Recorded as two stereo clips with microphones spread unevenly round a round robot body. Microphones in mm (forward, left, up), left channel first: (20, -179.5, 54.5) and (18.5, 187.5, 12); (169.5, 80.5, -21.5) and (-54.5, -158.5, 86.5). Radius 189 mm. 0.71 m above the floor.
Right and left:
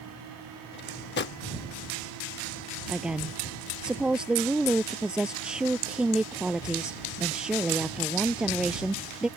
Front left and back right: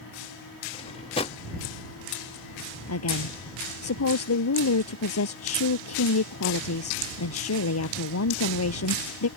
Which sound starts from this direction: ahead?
A woman speaking, at 2.9 s.